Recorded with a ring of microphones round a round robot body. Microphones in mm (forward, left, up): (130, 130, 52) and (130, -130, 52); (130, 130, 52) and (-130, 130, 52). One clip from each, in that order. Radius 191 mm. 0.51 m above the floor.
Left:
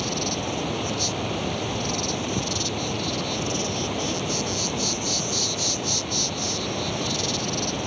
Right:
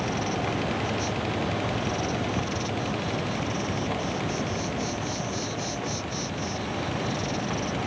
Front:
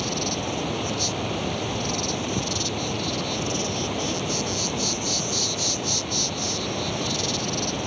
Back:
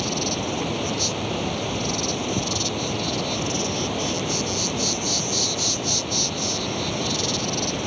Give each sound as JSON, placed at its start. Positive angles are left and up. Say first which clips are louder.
{"t": 0.0, "sound": "an insect", "louder": "left 1 dB, back 2 dB", "azimuth_deg": 95}